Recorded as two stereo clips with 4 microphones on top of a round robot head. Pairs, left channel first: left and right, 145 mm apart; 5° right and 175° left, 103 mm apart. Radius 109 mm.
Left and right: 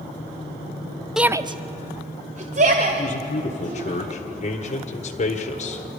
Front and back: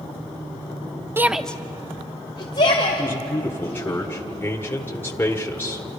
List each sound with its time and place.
1.2 s a shout: 170° right, 0.7 m; by 3.9 s 50° right, 3.5 m
2.9 s a man speaking: 65° left, 1.7 m